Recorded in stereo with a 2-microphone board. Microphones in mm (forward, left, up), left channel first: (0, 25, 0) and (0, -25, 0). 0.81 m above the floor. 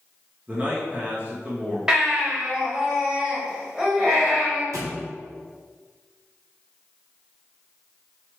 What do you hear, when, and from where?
0.5 s a man speaking: 30° right (ahead or behind), 0.9 m
1.9 s a baby crying: 15° right (ahead or behind), 1.3 m
4.7 s a thud: 75° right (ahead or behind), 0.8 m